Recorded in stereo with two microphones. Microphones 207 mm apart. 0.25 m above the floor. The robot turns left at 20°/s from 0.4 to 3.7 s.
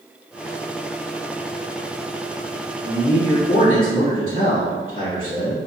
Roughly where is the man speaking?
Left.